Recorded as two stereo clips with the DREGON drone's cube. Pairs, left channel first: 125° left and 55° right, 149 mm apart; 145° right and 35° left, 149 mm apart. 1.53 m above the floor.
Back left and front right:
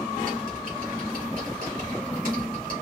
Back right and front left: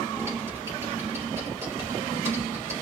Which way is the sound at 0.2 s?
35° right.